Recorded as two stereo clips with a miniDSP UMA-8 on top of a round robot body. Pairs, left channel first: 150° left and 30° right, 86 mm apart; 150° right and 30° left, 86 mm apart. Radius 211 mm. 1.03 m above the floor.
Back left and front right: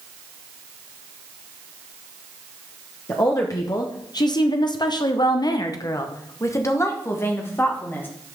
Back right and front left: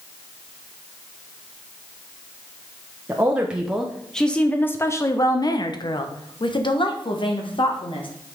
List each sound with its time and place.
3.1 s a woman speaking: 100° left, 1.2 m; by 8.1 s 145° right, 2 m